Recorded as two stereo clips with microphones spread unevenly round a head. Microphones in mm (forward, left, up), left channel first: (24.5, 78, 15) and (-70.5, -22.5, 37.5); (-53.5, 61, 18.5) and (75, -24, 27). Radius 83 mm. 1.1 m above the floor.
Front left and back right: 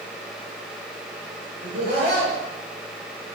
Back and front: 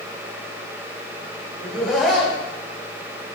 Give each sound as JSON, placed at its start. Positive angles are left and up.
{"t": 1.6, "sound": "laughter", "azimuth_deg": -120, "distance_m": 5.0}